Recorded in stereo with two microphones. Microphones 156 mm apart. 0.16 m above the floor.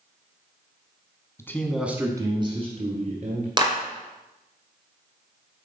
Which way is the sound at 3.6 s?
30° right (ahead or behind).